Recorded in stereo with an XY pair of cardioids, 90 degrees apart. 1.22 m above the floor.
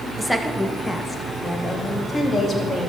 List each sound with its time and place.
0.2 s a woman speaking: straight ahead, 1.4 m; by 2.9 s 45° left, 3 m